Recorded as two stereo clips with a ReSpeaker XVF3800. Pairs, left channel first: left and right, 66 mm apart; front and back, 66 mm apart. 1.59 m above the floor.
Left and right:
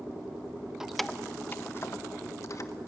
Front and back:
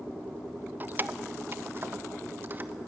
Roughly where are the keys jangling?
Behind.